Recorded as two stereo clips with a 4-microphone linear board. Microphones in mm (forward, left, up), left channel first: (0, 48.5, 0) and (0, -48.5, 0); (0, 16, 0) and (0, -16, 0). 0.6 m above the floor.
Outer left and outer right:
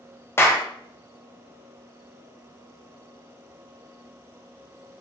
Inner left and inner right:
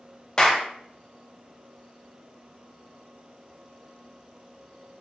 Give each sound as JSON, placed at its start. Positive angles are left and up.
{"t": 0.4, "sound": "a clap", "side_deg": 25, "distance_m": 0.6}